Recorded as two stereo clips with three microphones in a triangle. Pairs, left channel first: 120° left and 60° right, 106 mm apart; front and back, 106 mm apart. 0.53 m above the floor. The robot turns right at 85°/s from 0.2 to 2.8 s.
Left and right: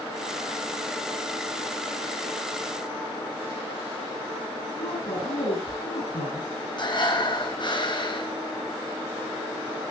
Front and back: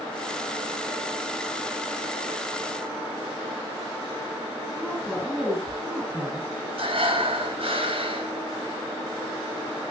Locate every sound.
4.8 s a woman speaking: 100° left, 9.5 m
6.8 s breathing: 160° left, 4 m